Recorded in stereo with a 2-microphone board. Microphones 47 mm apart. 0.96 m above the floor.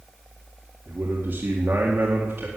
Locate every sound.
0.9 s a man speaking: 50° right (ahead or behind), 2 m